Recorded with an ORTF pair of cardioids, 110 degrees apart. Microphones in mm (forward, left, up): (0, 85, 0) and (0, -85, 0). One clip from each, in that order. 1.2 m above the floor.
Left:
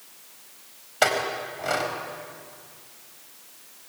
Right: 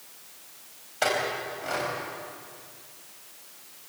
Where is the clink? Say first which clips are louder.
Left 3 dB; 40° left, 4.5 m.